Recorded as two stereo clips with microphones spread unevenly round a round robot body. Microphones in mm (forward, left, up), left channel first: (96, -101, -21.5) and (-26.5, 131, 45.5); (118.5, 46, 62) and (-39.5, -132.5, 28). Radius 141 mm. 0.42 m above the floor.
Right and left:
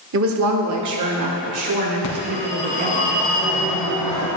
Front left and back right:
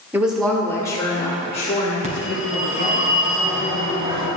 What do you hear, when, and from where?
0.1 s a woman speaking: 160° left, 0.9 m; by 3.0 s 105° left, 2 m
2.0 s a phone ringing: 70° right, 3 m